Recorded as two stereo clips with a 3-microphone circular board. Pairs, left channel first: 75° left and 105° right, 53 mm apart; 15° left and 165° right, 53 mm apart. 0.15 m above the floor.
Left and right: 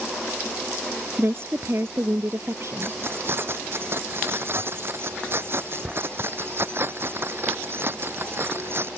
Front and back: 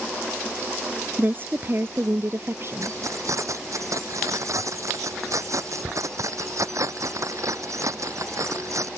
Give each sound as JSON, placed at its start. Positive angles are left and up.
{"t": 1.2, "sound": "a woman speaking", "azimuth_deg": -125}
{"t": 2.8, "sound": "keys jangling", "azimuth_deg": -150}